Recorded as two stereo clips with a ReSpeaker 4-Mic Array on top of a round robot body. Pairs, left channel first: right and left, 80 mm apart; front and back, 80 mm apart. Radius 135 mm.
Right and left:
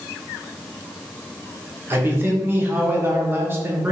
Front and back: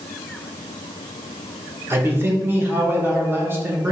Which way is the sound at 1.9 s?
135° left.